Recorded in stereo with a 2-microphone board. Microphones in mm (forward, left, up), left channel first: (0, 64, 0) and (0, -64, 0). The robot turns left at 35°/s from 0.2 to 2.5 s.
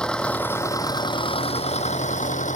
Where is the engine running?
170° left; by 2.6 s 90° left.